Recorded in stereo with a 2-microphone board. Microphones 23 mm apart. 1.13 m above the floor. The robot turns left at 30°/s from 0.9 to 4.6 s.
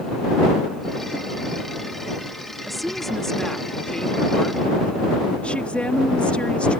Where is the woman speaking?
Straight behind; by 6.8 s 120° left.